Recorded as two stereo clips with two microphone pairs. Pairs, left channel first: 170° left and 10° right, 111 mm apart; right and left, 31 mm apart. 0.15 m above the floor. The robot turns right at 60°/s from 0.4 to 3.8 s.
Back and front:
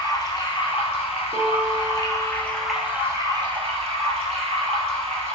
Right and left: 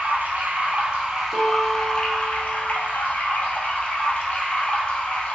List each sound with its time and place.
0.0 s running water: 120° left, 0.8 m; by 5.4 s 35° right, 0.8 m
1.3 s a piano: 5° left, 1.4 m; by 2.8 s 95° left, 1.4 m